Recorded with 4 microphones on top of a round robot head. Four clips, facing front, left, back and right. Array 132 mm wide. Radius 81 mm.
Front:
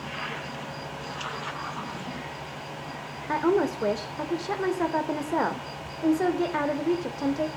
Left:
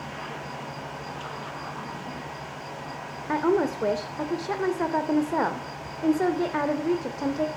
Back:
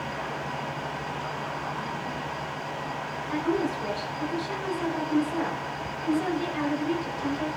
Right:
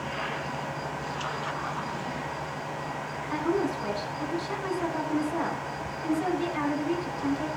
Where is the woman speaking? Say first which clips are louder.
Left 5 dB, front 4 dB; 55° left, 3 m.